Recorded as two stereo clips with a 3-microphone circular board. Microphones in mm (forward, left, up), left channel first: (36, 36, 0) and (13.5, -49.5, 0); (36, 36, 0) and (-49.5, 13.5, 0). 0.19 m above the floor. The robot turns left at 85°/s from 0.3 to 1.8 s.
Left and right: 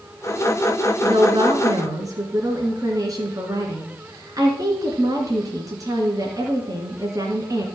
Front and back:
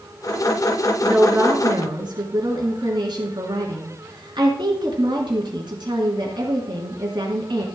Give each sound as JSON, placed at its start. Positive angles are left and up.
{"t": 1.0, "sound": "a woman speaking", "azimuth_deg": -80, "distance_m": 2.5}